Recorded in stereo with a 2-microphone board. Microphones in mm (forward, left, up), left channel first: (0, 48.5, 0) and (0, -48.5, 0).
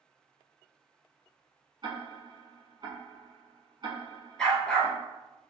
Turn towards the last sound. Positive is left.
turn(degrees=5)  # may be behind; listen again after turning